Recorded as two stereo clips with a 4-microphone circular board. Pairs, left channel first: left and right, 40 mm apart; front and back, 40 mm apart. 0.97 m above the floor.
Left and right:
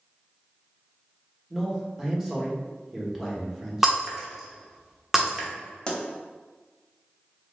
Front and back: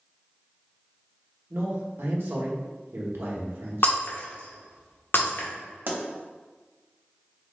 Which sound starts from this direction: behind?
A man speaking, at 1.5 s.